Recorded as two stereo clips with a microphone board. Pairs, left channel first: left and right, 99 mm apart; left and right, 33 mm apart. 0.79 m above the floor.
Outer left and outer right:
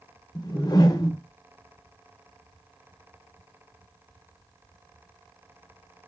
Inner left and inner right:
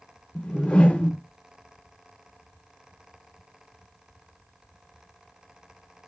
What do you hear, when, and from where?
0.3 s a whoosh: 40° left (ahead or behind), 0.5 m